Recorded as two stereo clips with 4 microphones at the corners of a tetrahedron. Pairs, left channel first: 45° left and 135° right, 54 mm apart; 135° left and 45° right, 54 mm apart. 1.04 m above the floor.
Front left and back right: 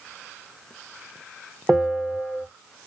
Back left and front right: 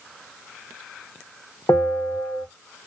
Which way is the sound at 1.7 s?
145° left.